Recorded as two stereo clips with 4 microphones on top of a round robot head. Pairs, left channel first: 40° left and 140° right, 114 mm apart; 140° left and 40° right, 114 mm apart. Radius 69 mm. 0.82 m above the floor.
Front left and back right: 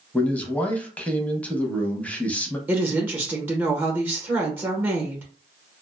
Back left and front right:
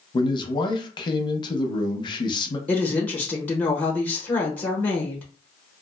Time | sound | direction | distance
0.1 | a man speaking | 115° left | 0.7 m
2.7 | a woman speaking | 175° right | 0.9 m